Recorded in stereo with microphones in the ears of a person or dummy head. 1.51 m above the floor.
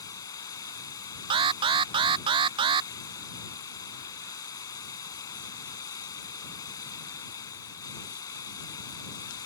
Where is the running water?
25° left (ahead or behind).